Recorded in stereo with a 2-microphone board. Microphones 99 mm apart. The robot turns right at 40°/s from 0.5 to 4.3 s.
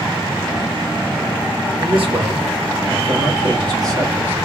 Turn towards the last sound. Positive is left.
turn(degrees=-25)